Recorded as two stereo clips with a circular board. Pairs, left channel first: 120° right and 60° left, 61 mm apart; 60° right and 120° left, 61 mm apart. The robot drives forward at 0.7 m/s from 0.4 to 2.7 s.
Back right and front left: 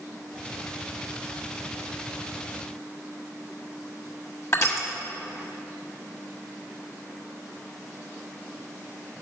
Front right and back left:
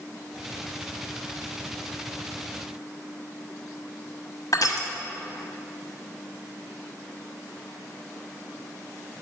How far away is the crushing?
About 1.2 m.